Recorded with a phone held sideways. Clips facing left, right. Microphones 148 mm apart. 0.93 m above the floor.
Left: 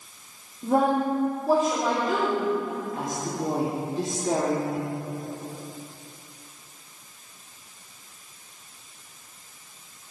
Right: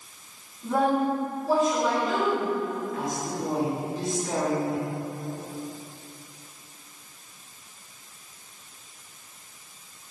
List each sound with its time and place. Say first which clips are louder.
0.6 s a woman speaking: left 1 dB; 45° left (ahead or behind), 1.8 m